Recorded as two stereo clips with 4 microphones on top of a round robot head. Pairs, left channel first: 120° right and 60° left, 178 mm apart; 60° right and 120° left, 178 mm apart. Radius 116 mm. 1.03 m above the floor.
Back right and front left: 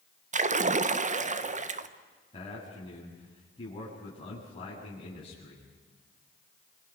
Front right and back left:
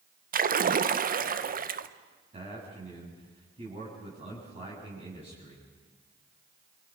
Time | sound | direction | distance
0.3 | a splash | 100° left | 1.2 m
2.3 | a man speaking | 175° left | 7.5 m